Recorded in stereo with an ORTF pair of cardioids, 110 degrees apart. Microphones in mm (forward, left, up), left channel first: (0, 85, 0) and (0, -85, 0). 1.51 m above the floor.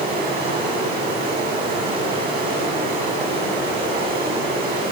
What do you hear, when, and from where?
0.0 s running water: 65° right, 9.5 m